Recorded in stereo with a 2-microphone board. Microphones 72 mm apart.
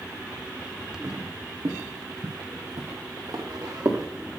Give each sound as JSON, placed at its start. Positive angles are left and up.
{"t": 1.0, "sound": "footsteps", "side_deg": -40, "distance_m": 1.8}